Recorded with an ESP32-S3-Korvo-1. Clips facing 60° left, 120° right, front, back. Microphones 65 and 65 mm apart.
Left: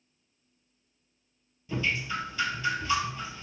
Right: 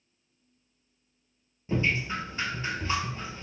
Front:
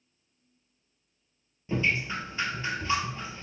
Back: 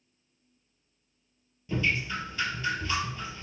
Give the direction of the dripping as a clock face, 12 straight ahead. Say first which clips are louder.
Right 2 dB, front 1 dB; 2 o'clock.